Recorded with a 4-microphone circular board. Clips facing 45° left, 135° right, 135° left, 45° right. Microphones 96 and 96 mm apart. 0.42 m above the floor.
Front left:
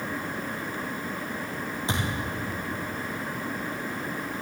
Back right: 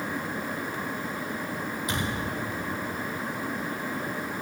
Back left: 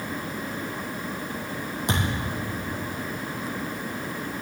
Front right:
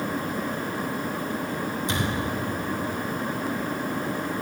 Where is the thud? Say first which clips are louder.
Front left 1 dB, back left 2 dB; 105° left, 5 m.